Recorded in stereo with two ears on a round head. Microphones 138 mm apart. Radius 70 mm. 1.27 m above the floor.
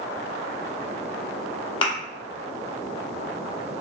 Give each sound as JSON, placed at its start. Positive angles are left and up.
{"t": 1.8, "sound": "a thud", "side_deg": 30, "distance_m": 0.9}